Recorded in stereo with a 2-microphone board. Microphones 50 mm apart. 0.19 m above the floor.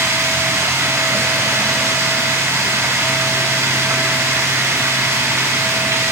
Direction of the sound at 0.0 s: 70° right (ahead or behind).